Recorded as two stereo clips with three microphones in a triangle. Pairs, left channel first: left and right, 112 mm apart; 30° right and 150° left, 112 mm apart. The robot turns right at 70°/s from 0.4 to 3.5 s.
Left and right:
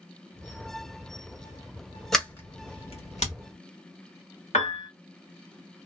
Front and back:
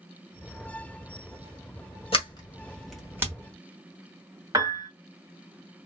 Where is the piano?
95° left, 1.3 m.